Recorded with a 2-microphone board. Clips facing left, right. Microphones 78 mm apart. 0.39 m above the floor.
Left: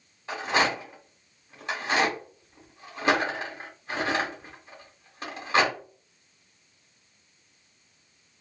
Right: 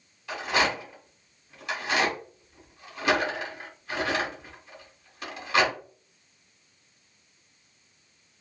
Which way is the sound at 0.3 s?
30° left (ahead or behind).